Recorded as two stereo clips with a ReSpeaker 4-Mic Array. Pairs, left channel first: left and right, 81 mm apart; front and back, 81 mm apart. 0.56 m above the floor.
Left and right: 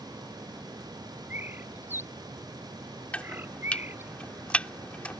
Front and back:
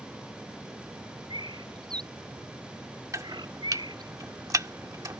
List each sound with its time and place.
1.3 s a bird: 155° right
3.1 s chopping: 160° left